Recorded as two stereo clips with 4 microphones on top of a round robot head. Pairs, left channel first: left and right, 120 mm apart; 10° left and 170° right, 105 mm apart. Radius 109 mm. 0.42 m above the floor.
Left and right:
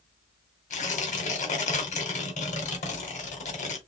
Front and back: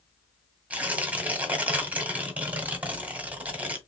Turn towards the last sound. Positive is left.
turn(degrees=110)